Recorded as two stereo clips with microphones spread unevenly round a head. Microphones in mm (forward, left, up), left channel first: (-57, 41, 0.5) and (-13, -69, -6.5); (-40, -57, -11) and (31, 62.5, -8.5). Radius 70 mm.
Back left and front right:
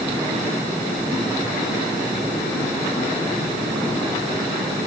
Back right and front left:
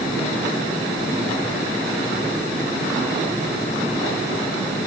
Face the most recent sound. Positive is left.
No sound to turn to.